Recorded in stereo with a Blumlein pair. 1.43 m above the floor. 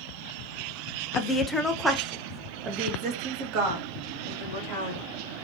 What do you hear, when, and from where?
1.1 s a woman speaking: 25° left, 0.8 m; by 5.0 s 50° right, 2.5 m